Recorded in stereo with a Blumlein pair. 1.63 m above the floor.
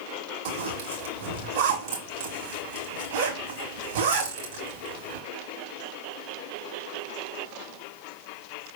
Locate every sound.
0.5 s a zipper: 55° right, 1.8 m